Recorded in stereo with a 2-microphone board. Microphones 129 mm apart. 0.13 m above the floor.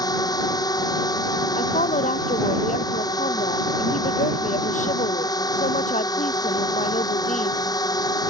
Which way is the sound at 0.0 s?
30° left (ahead or behind).